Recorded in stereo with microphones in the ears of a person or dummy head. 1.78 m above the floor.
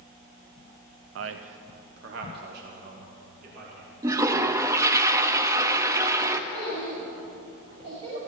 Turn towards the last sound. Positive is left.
turn(degrees=-25)  # may be behind; listen again after turning